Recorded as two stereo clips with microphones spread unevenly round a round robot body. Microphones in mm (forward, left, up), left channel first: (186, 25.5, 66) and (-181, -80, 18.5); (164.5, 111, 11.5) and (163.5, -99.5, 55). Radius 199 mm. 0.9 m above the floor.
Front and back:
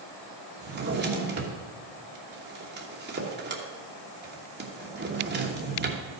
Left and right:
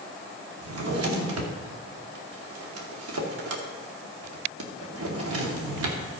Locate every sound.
0.6 s a drawer: 100° right, 1.1 m